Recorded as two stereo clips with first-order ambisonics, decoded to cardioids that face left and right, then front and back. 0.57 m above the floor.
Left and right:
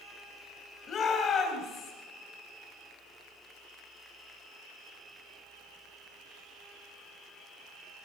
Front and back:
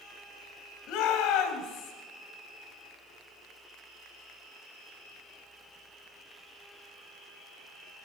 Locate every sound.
0.9 s a shout: 30° left, 4 m; by 1.9 s 35° left, 4.5 m